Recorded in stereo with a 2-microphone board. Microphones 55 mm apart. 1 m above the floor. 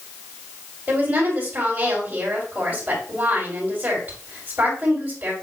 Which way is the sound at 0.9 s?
30° right (ahead or behind).